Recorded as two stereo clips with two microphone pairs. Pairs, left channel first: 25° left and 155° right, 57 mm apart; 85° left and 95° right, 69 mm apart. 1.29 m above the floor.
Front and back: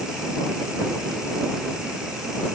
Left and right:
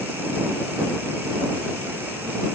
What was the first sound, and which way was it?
Only background noise.